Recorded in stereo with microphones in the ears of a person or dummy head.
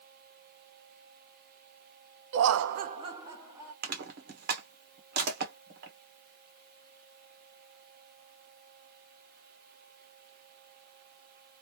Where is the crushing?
55° right (ahead or behind), 1.0 m.